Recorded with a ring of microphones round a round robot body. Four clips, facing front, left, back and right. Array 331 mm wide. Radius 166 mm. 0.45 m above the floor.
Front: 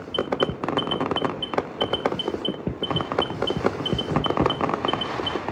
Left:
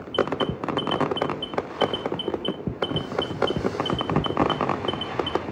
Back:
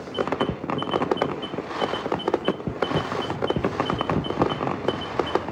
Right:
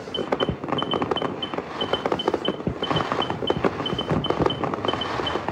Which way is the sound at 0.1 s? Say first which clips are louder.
Left 1 dB, front 1 dB; 10° left.